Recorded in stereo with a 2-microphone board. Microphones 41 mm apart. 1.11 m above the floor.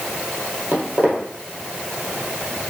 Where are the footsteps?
45° right (ahead or behind), 1.9 m.